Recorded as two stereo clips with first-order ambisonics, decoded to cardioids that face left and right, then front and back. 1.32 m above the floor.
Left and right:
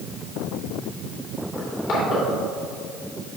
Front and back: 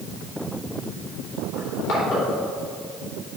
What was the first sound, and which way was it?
Crushing, 35° left.